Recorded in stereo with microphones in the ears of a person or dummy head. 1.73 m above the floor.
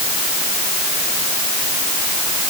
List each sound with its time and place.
Only background noise.